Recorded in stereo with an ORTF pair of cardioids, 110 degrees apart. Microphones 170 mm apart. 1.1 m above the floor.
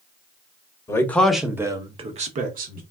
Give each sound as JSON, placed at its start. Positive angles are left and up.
{"t": 0.9, "sound": "a man speaking", "azimuth_deg": 15, "distance_m": 0.9}